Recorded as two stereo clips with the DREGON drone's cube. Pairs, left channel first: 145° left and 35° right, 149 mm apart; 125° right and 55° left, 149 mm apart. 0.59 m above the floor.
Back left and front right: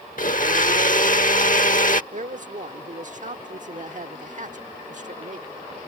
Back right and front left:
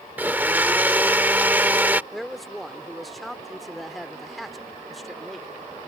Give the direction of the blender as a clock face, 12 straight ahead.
8 o'clock.